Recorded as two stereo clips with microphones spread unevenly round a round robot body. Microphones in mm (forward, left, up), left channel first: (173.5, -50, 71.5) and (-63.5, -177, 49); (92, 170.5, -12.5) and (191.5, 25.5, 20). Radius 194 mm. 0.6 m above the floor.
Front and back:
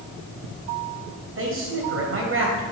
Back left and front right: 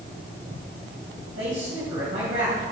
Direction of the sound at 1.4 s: 110° right.